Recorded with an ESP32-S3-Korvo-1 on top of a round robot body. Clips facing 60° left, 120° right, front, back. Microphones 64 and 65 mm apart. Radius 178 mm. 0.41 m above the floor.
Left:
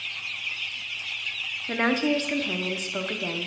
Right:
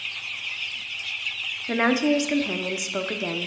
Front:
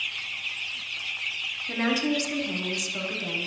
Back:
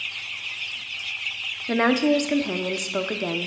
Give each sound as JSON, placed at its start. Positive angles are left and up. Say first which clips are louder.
{"t": 1.7, "sound": "a woman speaking", "louder": "right 3 dB, back 7 dB", "azimuth_deg": 165, "distance_m": 1.1}